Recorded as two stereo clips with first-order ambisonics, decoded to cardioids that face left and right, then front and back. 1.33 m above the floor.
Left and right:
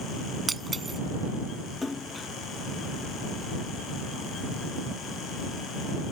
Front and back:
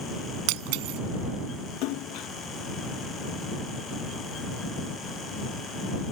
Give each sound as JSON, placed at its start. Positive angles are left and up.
{"t": 0.5, "sound": "breaking glass", "azimuth_deg": -170}
{"t": 1.8, "sound": "a splash", "azimuth_deg": 15}